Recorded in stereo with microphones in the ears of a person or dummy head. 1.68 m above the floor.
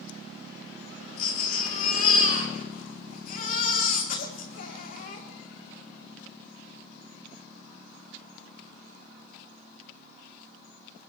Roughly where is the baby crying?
Left.